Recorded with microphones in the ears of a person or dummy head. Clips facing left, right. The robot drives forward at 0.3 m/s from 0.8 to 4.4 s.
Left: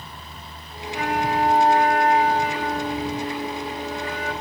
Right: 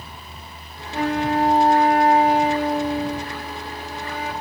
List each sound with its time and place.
0.9 s a flute: 30° right (ahead or behind), 1.5 m; by 4.3 s 20° right (ahead or behind), 2.5 m